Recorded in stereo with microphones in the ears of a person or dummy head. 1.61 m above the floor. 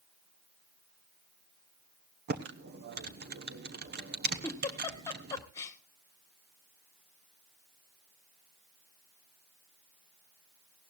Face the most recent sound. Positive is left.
turn(degrees=20)  # may be behind; listen again after turning